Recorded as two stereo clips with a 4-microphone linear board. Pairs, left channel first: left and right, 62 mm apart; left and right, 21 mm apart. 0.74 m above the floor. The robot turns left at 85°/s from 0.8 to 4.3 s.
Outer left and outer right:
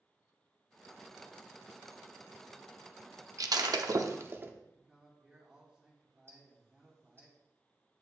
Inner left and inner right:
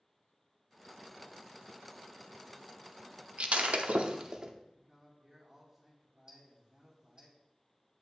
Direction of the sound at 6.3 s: 40° right (ahead or behind).